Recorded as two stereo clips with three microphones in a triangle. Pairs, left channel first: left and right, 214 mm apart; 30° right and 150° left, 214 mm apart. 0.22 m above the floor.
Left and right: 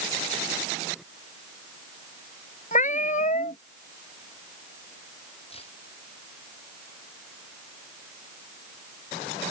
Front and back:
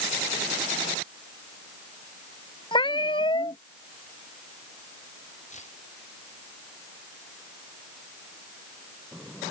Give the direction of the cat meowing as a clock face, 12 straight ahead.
11 o'clock.